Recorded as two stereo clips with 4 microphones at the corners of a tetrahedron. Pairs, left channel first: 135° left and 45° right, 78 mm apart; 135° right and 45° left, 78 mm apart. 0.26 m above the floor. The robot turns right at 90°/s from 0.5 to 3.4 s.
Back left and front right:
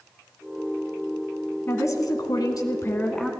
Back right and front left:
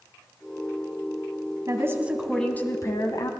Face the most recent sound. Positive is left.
turn(degrees=-125)